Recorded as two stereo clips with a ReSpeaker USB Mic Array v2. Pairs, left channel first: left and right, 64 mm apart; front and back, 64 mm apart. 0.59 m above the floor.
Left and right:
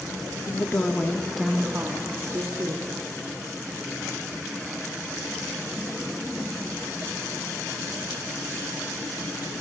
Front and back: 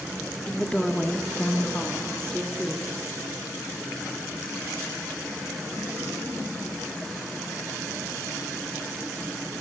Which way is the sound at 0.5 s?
75° left.